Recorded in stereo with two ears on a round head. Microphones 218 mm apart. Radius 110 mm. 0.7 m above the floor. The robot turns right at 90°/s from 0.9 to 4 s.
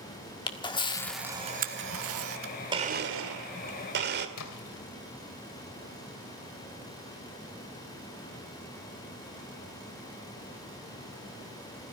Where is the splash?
70° left (ahead or behind), 3 m.